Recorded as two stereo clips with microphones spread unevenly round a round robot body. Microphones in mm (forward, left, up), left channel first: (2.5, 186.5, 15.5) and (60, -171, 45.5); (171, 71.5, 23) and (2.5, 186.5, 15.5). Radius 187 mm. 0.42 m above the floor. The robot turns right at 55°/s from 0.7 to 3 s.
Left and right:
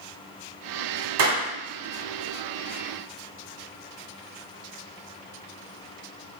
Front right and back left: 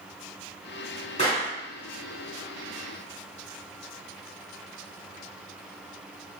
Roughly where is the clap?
Right.